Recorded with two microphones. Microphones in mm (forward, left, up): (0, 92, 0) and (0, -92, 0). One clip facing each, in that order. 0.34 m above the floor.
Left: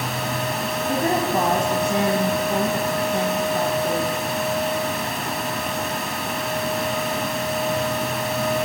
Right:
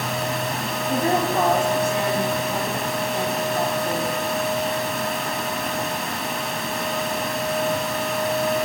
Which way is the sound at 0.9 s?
60° left (ahead or behind).